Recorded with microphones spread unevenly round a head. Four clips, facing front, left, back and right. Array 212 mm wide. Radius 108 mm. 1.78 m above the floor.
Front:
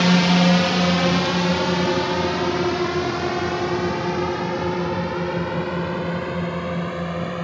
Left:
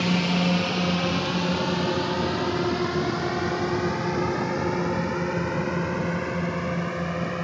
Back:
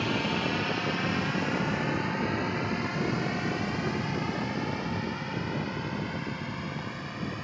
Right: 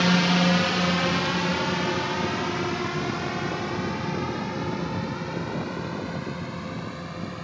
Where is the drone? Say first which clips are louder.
Right 2 dB, front 12 dB; 10° right; by 7.5 s 30° left.